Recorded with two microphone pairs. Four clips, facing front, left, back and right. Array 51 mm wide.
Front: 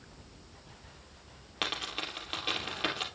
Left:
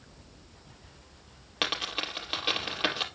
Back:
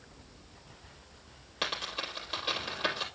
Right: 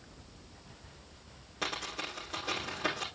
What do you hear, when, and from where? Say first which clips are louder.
1.6 s a dropped coin: left 5 dB, even; 75° left, 3 m